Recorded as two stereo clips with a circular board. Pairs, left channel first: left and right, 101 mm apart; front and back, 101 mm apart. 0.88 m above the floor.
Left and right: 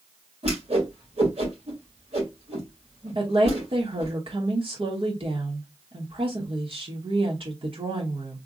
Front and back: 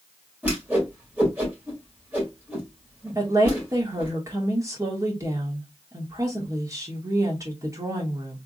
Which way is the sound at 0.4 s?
105° right.